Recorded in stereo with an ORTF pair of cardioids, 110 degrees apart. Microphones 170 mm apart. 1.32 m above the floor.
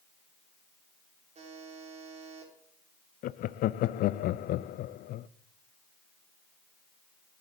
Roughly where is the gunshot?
I don't hear a gunshot.